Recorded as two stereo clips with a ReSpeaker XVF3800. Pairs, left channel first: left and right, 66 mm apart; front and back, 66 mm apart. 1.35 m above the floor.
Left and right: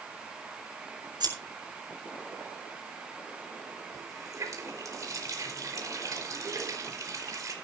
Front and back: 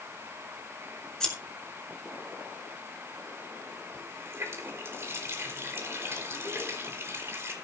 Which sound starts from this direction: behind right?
A running tap, at 3.9 s.